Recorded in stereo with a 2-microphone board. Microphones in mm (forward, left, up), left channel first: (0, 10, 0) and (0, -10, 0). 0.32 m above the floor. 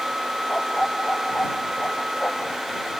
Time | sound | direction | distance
0.5 | a dog barking | 55° left (ahead or behind) | ?